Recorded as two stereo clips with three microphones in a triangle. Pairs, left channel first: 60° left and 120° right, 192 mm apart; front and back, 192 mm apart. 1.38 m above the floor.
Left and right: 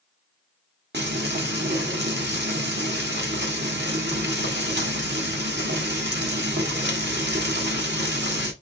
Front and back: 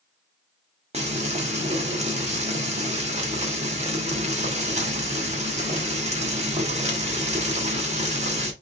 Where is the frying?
130° right, 1.4 m.